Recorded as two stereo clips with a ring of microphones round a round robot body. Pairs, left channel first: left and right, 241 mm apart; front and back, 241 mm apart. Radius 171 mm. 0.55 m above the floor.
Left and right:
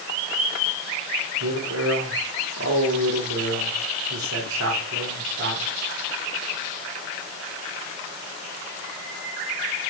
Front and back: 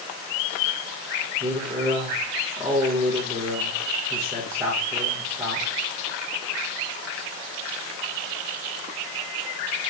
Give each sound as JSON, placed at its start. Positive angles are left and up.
{"t": 1.4, "sound": "a man speaking", "azimuth_deg": -100, "distance_m": 1.1}